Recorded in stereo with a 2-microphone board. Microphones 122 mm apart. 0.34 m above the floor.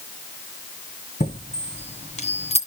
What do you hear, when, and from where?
1.2 s a chime: 70° left (ahead or behind), 2 m